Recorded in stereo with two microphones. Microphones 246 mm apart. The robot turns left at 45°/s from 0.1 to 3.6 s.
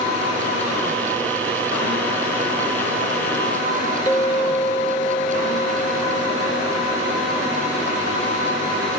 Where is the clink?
20° left (ahead or behind), 3.5 m.